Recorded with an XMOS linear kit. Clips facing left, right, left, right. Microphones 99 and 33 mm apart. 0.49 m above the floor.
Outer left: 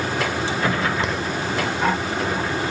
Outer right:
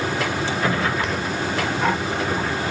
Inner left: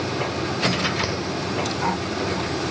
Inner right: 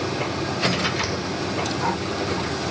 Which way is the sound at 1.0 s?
25° left (ahead or behind).